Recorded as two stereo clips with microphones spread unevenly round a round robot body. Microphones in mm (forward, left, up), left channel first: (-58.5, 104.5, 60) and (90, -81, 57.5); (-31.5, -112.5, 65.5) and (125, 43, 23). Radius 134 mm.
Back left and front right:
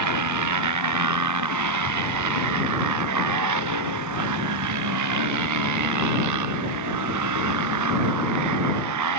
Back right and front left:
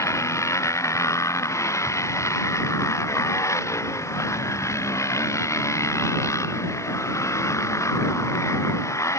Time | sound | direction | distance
0.0 | a motorcycle | 60° right | ?